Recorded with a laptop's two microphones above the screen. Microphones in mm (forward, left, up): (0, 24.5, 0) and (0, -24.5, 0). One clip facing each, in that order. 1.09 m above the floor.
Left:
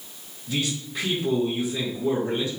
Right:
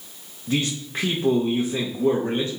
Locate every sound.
0.5 s a man speaking: 55° right (ahead or behind), 1.3 m